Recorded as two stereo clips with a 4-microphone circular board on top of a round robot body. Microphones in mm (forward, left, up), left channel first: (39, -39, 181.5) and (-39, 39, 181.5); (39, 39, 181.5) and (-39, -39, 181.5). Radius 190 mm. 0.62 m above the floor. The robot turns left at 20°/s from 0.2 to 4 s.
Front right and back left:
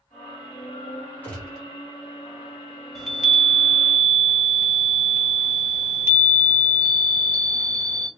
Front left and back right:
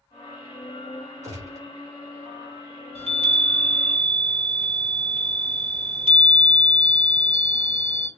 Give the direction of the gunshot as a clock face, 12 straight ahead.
4 o'clock.